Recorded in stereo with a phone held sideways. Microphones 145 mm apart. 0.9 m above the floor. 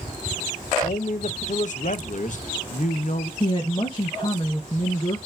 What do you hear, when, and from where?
0.8 s a man speaking: 60° left (ahead or behind), 0.6 m
3.4 s a woman speaking: 35° left (ahead or behind), 0.8 m